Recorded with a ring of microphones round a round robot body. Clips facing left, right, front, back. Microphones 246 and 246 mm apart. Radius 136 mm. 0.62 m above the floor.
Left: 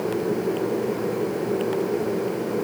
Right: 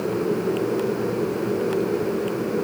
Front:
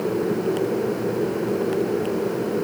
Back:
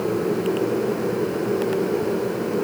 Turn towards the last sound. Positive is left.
No sound to turn to.